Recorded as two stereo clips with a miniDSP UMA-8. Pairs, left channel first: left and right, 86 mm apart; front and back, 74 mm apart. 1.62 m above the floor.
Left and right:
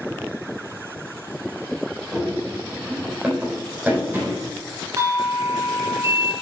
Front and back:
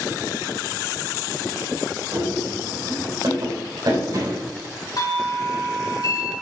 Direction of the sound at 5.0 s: 35° right.